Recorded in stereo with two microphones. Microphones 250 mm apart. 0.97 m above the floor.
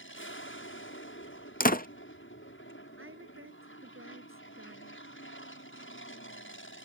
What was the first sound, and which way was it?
An aircraft, 55° left (ahead or behind).